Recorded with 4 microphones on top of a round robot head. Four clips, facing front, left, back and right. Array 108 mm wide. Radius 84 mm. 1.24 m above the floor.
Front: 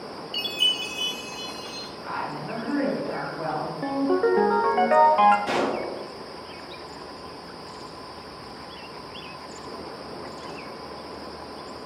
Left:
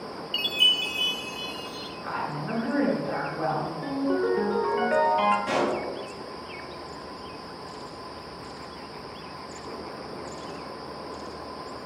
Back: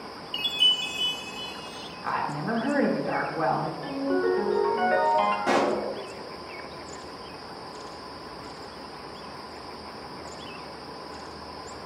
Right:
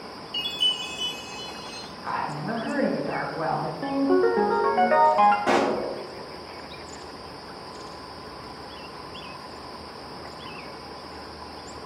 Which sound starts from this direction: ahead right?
A ringtone, at 3.8 s.